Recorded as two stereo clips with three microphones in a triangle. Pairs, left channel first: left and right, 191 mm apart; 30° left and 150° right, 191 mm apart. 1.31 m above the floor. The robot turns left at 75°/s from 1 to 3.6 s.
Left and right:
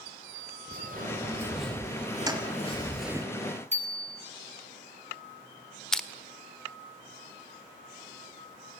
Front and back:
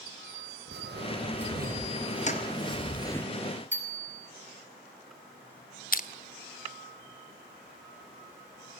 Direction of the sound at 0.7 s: 130° right.